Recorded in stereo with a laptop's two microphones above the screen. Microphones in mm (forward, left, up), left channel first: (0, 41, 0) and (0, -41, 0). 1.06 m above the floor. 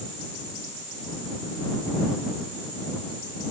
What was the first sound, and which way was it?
Only background noise.